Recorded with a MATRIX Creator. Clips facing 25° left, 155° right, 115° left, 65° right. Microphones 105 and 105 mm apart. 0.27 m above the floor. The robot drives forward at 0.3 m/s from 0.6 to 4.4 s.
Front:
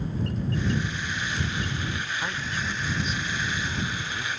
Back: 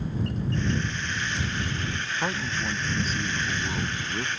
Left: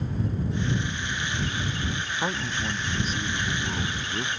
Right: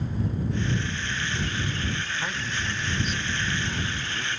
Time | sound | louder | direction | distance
2.0 | a man speaking | back 2 dB, left 3 dB | 155° left | ?